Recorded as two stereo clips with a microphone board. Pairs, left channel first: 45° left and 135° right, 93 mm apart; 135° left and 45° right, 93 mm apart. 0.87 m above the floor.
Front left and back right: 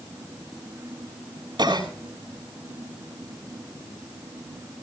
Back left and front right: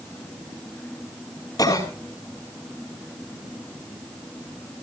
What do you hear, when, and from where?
1.6 s a cough: 175° right, 6.5 m